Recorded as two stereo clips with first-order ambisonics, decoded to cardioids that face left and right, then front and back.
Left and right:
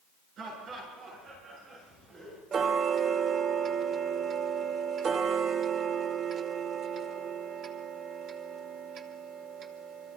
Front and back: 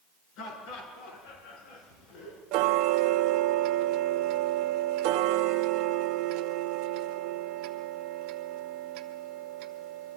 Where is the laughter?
35° right, 9.5 m; by 2.4 s 25° right, 8.5 m.